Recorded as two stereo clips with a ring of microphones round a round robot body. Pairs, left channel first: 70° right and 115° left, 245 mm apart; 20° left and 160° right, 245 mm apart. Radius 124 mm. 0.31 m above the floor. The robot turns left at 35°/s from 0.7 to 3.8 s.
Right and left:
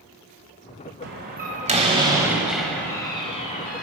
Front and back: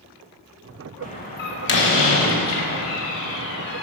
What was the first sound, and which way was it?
A door slam, 80° left.